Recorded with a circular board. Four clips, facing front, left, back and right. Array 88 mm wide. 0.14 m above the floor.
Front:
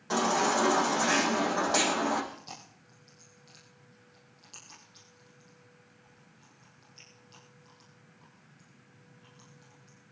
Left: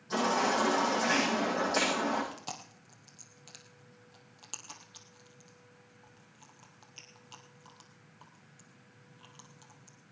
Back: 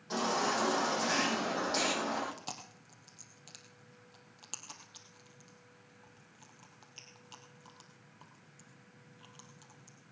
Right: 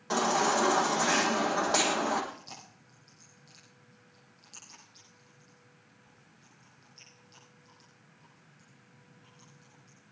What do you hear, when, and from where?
0.1 s a baby crying: 55° right, 5 m
2.3 s chewing: 125° left, 3 m